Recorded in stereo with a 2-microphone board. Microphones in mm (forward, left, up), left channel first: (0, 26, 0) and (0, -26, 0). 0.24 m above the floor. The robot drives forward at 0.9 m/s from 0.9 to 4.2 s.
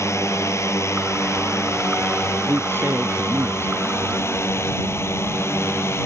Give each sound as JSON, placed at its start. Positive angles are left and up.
{"t": 0.0, "sound": "a drone", "side_deg": 60}
{"t": 2.5, "sound": "a man speaking", "side_deg": -40}